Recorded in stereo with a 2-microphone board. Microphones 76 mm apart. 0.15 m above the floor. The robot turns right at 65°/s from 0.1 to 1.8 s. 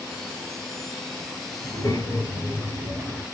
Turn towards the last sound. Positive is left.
turn(degrees=30)  # may be behind; listen again after turning